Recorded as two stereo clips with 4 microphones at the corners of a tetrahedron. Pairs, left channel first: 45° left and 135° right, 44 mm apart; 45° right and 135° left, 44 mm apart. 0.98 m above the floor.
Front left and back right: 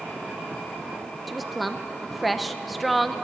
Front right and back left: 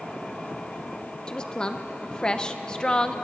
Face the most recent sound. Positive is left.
turn(degrees=-45)